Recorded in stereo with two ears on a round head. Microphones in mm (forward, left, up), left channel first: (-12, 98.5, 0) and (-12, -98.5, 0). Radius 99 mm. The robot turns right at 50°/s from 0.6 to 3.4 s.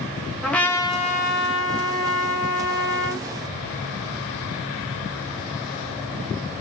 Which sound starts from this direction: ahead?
A trumpet, at 0.4 s.